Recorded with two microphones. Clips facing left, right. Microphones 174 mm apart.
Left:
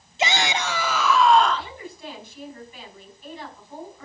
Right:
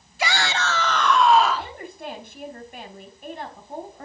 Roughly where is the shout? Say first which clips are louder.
Left 1 dB; left.